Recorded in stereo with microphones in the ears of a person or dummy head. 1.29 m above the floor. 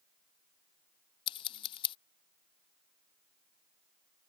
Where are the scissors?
35° left (ahead or behind).